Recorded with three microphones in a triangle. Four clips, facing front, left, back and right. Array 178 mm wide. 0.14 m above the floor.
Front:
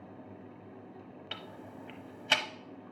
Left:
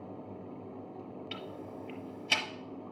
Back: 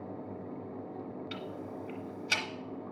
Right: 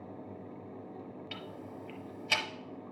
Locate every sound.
1.3 s ticking: 5° right, 0.8 m